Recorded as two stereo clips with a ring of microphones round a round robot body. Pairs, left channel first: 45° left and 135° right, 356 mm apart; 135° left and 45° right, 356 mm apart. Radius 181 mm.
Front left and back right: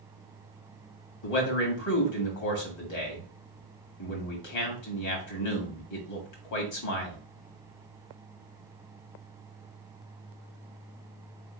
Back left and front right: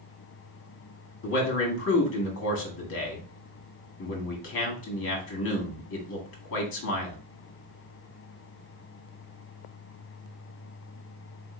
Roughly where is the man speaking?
Left.